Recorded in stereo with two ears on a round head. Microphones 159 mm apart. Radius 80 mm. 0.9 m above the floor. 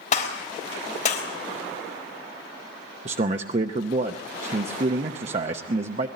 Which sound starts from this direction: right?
A man speaking, at 3.0 s.